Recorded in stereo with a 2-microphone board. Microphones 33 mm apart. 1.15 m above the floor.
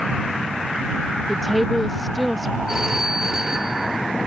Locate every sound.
1.3 s a woman speaking: centre (ahead or behind)
2.7 s a phone ringing: 15° right (ahead or behind)